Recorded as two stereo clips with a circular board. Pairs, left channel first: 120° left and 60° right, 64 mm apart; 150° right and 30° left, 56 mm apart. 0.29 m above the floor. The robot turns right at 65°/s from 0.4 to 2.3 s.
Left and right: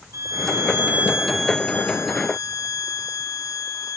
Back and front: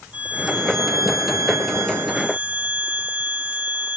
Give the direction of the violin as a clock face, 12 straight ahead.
1 o'clock.